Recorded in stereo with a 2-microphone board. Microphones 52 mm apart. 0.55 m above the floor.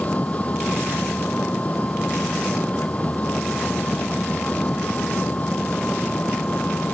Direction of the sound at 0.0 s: 25° left (ahead or behind).